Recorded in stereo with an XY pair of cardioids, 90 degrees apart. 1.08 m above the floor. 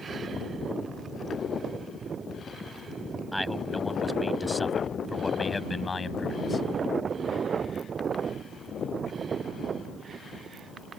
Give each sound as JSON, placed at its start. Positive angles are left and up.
{"t": 3.3, "sound": "a man speaking", "azimuth_deg": 0}